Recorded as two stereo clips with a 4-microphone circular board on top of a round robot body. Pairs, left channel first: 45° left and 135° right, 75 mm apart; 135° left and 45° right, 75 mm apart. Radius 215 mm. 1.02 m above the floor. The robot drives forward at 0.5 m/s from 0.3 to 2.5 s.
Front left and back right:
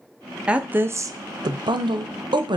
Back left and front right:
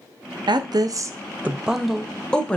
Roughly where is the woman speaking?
Ahead right.